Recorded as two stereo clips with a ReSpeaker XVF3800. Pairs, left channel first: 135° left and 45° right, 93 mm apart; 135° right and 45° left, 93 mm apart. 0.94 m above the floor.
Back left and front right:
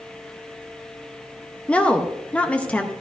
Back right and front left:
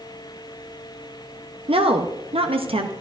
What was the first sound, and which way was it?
A woman speaking, 55° left.